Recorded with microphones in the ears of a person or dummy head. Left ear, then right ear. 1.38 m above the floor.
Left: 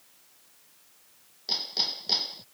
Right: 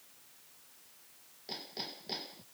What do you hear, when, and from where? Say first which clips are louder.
1.5 s hammering: left 14 dB; 40° left (ahead or behind)